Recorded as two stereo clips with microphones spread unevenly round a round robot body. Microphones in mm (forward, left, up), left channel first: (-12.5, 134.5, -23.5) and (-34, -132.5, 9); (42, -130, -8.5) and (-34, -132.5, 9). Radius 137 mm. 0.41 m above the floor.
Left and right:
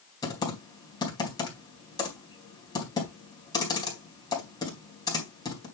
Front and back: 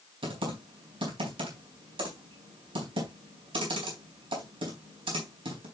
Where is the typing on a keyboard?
160° left, 3.5 m.